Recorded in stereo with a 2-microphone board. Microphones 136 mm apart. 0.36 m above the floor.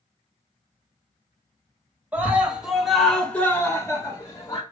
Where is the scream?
10° right (ahead or behind), 2 m; by 4.6 s 35° left (ahead or behind), 1.8 m.